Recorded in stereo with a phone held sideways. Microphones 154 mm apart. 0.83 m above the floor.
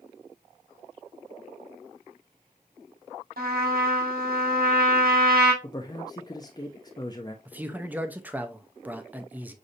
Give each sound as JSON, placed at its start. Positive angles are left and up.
{"t": 3.4, "sound": "a trumpet", "side_deg": -85, "distance_m": 1.7}
{"t": 5.6, "sound": "a man speaking", "side_deg": 25, "distance_m": 0.6}
{"t": 7.5, "sound": "a man speaking", "side_deg": -10, "distance_m": 0.6}